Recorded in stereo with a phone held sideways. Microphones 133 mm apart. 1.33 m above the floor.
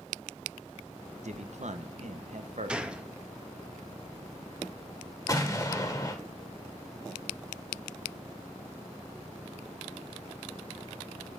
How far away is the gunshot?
About 0.7 m.